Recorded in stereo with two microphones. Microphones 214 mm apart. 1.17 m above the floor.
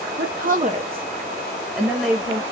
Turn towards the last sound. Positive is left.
turn(degrees=5)  # may be behind; listen again after turning